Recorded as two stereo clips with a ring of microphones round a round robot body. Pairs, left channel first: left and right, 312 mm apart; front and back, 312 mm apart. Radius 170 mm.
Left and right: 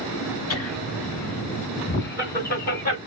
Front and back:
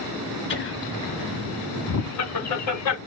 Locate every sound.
0.5 s laughter: 55° left, 3 m; by 3.0 s 25° left, 2.5 m